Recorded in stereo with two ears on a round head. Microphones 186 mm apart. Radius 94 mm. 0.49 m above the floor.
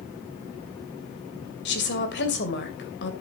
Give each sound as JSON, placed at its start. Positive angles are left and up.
{"t": 1.6, "sound": "a woman speaking", "side_deg": 60, "distance_m": 2.5}